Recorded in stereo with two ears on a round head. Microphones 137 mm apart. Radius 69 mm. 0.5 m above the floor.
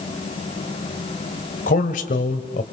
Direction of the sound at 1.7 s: 55° left (ahead or behind).